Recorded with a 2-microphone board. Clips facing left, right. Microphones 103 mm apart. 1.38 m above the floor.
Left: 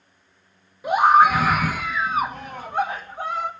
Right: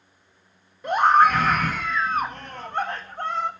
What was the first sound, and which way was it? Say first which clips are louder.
A scream: left 2 dB; 5° left (ahead or behind).